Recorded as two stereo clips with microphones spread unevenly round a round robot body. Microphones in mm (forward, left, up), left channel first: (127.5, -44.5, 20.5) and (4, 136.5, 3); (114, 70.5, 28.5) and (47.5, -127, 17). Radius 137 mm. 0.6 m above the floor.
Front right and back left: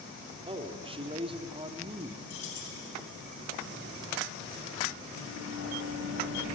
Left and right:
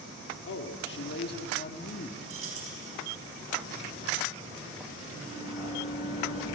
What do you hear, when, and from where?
0.5 s a man speaking: 65° left, 1.7 m; by 2.2 s 90° left, 1.1 m
2.3 s keys jangling: 95° right, 4 m
5.1 s a sliding door: 50° right, 8 m